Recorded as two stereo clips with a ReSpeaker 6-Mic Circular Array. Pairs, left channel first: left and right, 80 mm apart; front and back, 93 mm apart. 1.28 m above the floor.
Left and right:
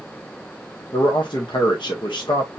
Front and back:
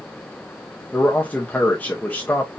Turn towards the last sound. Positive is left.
turn(degrees=70)